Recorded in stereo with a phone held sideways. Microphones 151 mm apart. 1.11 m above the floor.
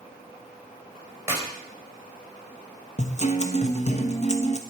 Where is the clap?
15° right (ahead or behind), 4 m.